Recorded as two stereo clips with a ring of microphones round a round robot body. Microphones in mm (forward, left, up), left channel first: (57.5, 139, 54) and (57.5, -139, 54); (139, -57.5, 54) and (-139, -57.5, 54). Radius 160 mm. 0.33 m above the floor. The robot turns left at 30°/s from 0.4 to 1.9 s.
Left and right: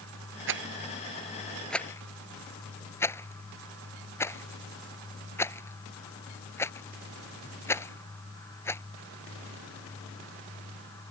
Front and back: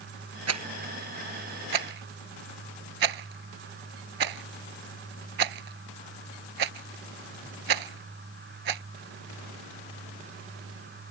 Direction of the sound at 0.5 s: 145° right.